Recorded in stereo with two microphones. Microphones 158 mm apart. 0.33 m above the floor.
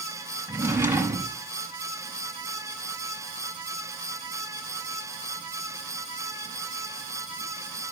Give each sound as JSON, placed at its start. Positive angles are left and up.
{"t": 0.5, "sound": "a drawer", "side_deg": -15, "distance_m": 1.1}